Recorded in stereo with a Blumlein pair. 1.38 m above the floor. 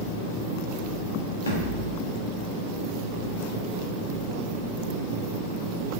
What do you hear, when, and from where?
1.5 s a thud: 65° left, 2.5 m